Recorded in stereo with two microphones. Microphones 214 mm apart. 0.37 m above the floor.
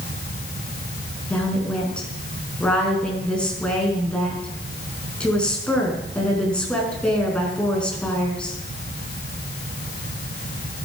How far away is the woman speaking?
About 5 m.